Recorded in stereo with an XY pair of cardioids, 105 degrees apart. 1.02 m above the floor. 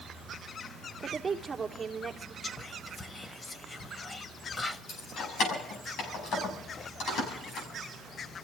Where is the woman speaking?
20° right, 3 m.